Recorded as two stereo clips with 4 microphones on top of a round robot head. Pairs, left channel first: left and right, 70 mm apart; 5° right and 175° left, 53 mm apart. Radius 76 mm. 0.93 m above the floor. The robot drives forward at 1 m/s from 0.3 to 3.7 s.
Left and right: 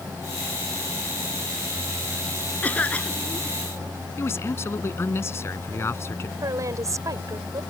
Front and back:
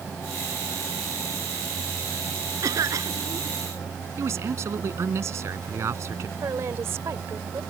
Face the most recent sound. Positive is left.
turn(degrees=-135)